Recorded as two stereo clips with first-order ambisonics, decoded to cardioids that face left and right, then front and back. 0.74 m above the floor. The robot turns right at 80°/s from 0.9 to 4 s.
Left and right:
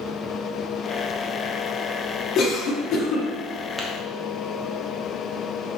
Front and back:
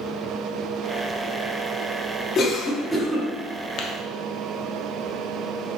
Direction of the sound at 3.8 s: 20° right.